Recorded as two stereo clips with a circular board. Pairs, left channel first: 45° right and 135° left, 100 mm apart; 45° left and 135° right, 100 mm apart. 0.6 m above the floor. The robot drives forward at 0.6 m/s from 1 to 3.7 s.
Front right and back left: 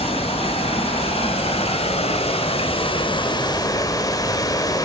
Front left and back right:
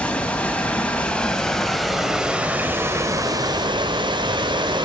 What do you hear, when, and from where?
0.0 s running water: 35° right, 1.8 m; by 4.8 s 95° right, 1.0 m